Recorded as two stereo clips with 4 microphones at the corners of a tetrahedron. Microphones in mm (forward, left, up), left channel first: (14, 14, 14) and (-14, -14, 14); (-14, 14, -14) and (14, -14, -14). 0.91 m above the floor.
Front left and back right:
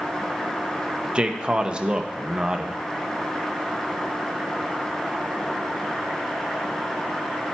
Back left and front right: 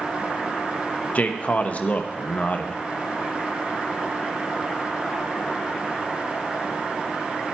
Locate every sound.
1.1 s a man speaking: 165° left, 0.9 m